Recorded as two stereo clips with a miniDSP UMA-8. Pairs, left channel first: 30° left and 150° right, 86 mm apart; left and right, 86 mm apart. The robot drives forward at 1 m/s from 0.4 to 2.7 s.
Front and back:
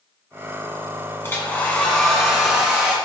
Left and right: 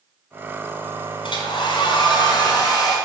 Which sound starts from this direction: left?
A hair dryer, at 1.2 s.